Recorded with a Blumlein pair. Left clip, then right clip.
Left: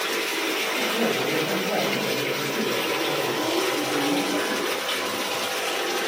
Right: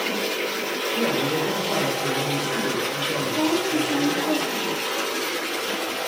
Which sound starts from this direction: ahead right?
A woman speaking, at 3.3 s.